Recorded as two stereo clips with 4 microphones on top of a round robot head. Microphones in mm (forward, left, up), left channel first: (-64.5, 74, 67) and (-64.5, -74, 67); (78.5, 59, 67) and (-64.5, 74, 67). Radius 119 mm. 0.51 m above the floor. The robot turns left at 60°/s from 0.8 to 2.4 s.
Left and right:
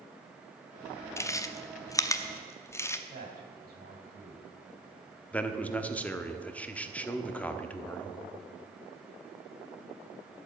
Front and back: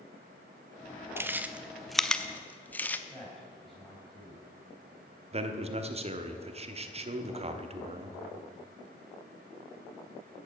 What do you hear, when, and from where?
1.2 s chewing: 125° left, 0.7 m; by 3.0 s 55° left, 0.7 m
3.1 s a man speaking: 95° right, 3 m
5.3 s a man speaking: 165° left, 1.1 m